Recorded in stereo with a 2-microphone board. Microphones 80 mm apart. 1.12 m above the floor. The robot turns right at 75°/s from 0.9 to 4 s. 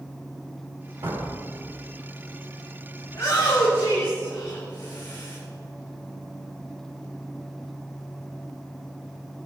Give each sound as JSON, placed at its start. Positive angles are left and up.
{"t": 1.0, "sound": "a door slam", "side_deg": -60, "distance_m": 5.5}
{"t": 3.1, "sound": "a shout", "azimuth_deg": 35, "distance_m": 3.0}